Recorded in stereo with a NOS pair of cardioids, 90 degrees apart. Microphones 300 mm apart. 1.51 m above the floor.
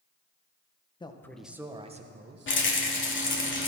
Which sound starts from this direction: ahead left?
A rattle, at 2.5 s.